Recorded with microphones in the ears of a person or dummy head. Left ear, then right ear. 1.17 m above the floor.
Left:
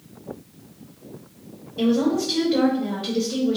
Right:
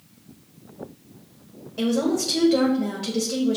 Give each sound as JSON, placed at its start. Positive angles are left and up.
{"t": 1.8, "sound": "a woman speaking", "side_deg": -75, "distance_m": 1.2}